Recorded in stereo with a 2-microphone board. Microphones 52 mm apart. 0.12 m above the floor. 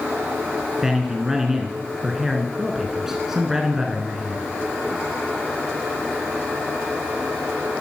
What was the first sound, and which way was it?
A man speaking, 10° right (ahead or behind).